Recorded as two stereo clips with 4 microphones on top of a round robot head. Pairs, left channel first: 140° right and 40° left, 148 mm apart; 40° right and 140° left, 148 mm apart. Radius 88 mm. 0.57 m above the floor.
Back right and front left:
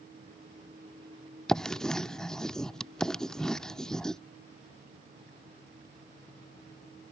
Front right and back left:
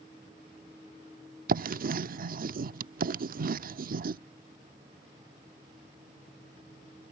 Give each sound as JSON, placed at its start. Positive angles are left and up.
{"t": 1.5, "sound": "writing", "azimuth_deg": 130}